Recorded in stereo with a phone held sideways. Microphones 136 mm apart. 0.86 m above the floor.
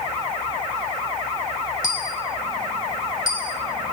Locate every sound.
1.8 s a dropped coin: 70° left (ahead or behind), 1.5 m